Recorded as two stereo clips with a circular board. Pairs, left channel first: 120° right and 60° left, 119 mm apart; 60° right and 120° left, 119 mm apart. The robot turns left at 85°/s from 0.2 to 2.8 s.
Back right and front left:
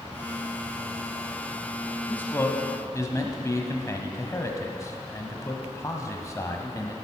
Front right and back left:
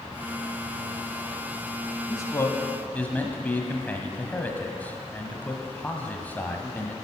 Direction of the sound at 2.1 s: 55° right.